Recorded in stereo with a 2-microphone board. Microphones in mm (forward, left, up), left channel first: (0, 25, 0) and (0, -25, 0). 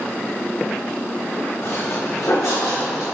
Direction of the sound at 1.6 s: 50° left (ahead or behind).